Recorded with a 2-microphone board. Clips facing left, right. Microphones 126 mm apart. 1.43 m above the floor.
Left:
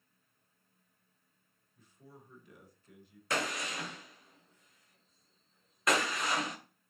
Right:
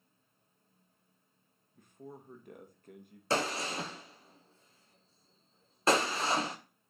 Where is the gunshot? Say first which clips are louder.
Right 3 dB; 30° right (ahead or behind), 0.9 m.